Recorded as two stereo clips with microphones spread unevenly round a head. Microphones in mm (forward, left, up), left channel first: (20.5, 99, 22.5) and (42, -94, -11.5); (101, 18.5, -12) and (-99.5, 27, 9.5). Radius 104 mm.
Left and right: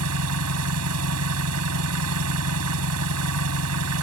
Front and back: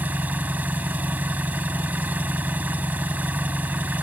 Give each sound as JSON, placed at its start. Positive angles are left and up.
{"t": 0.0, "sound": "an engine running", "azimuth_deg": -100}